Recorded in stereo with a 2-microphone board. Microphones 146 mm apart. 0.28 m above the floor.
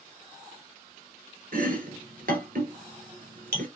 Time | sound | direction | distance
1.5 | chopping | 75° right (ahead or behind) | 0.8 m